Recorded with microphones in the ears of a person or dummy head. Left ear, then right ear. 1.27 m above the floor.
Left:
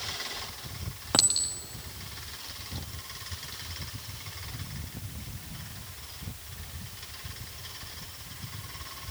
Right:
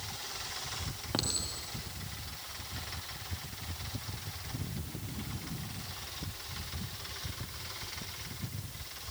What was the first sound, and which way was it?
A clink, 35° left (ahead or behind).